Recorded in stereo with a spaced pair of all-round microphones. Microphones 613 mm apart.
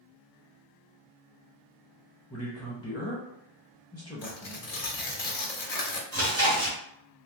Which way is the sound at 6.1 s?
65° right (ahead or behind).